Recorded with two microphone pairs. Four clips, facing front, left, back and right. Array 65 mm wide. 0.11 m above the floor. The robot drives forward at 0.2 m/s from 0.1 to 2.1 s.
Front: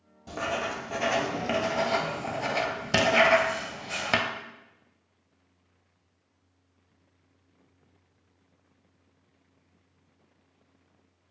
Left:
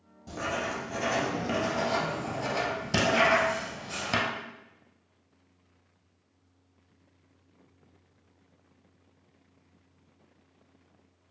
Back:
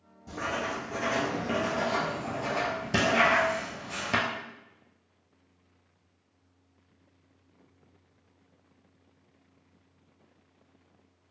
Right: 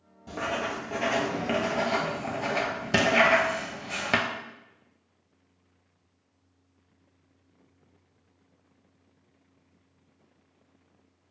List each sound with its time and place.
0.3 s writing: 20° right, 0.9 m; by 4.3 s 35° right, 0.6 m